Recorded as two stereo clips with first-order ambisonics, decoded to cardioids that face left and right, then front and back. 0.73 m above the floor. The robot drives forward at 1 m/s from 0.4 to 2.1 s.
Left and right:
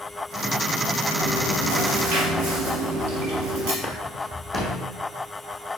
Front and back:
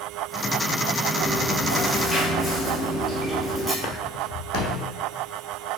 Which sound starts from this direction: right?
Chewing, at 1.1 s.